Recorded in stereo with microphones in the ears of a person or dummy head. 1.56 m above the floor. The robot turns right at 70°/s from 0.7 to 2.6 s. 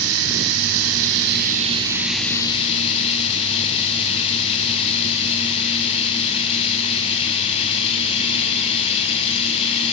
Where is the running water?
105° right, 4.5 m; by 9.9 s 30° left, 4.5 m.